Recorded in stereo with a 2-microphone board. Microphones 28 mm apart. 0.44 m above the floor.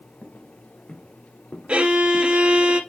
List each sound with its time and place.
0.2 s footsteps: 60° left (ahead or behind), 2 m; by 2.4 s 80° left, 2.5 m
1.7 s a violin: 40° right (ahead or behind), 1.9 m